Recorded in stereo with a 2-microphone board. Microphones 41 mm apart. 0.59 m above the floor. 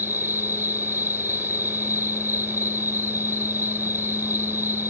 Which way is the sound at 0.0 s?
65° right (ahead or behind).